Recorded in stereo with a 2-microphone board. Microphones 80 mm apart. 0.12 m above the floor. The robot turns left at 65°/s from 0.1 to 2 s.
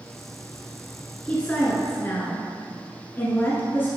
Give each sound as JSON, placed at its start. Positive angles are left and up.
{"t": 1.2, "sound": "a woman speaking", "side_deg": 15, "distance_m": 1.3}